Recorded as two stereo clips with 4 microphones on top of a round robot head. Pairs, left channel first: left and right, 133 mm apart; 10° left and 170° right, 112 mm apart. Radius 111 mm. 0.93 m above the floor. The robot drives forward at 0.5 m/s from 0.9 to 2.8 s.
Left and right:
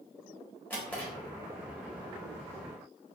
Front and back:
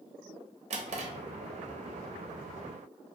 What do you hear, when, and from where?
0.7 s a drawer: 170° left, 0.6 m